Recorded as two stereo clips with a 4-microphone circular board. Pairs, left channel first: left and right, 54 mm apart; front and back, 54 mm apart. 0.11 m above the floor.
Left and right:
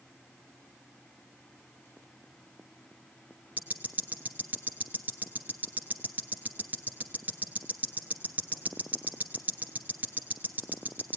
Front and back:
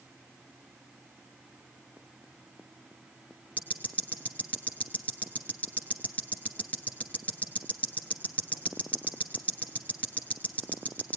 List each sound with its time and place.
3.6 s ticking: 50° right, 1.1 m